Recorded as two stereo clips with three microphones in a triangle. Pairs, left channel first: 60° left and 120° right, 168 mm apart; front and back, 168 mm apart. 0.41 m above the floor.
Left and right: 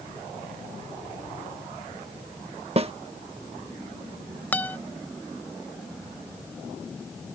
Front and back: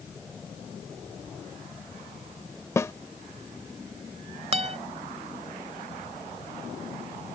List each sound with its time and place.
2.8 s a snare drum: 70° right
4.5 s a guitar: 140° left